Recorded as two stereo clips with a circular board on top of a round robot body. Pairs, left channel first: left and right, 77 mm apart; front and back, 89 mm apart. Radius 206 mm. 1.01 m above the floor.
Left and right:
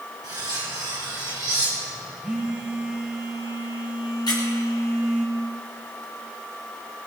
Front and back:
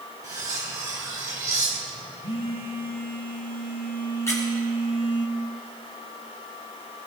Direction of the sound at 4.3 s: 60° left.